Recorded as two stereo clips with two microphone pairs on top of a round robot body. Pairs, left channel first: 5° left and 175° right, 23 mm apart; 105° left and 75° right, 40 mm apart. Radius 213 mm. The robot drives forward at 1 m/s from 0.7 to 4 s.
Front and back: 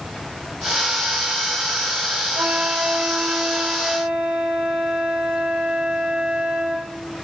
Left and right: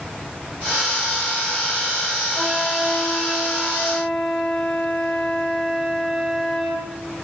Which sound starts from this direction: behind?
A flute, at 2.4 s.